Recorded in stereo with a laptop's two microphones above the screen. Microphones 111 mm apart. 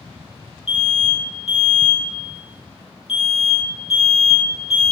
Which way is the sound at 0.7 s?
65° left (ahead or behind).